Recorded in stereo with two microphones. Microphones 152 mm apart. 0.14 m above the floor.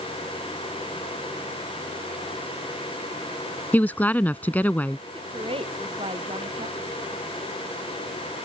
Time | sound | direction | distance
3.7 | a woman speaking | 10° left (ahead or behind) | ?
5.1 | a woman speaking | 40° right (ahead or behind) | ?